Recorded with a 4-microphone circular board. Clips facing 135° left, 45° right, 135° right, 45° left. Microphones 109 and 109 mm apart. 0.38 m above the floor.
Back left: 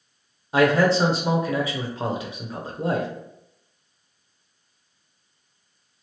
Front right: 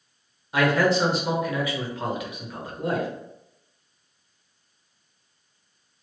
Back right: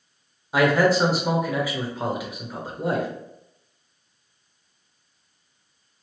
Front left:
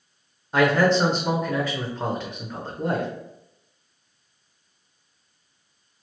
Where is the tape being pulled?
No tape being pulled in this recording.